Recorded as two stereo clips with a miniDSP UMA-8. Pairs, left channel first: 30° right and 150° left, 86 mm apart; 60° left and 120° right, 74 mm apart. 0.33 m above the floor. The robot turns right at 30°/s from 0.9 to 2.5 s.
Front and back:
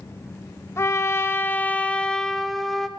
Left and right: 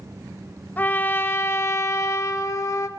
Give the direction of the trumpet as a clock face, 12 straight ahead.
12 o'clock.